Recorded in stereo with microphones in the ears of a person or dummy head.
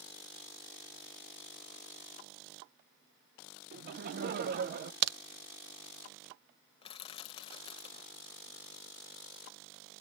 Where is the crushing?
30° left (ahead or behind), 0.9 m.